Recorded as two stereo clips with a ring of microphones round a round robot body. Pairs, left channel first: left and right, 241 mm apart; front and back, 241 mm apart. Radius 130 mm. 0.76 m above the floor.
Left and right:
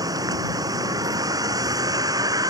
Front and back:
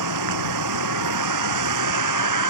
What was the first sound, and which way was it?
A vehicle, 165° right.